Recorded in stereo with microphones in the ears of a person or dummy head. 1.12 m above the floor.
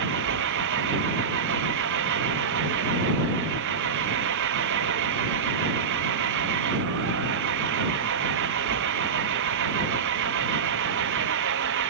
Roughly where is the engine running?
Right.